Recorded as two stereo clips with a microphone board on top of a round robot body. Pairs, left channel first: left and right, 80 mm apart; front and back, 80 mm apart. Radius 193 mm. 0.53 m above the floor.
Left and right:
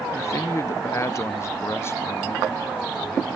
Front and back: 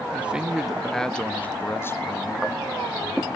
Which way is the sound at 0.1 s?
115° left.